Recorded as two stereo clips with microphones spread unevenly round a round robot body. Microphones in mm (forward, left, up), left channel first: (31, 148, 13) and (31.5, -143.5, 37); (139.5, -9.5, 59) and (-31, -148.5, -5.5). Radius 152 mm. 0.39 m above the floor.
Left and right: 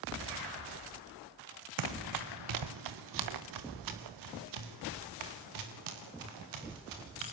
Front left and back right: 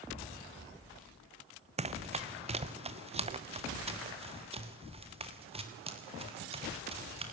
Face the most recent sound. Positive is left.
turn(degrees=-75)